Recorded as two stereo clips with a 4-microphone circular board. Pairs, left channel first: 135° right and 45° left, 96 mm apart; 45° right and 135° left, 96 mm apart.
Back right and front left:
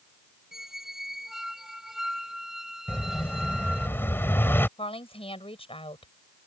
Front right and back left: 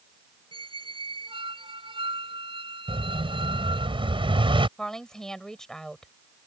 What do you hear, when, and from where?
0.5 s a squeak: 130° left
2.9 s an explosion: 160° left
4.8 s a woman speaking: 130° right